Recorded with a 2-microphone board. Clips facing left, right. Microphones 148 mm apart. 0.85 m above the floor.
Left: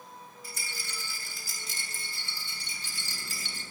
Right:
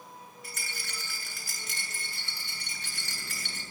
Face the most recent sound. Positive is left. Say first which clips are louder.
# right 1 dB
turn(degrees=-75)  # may be behind; listen again after turning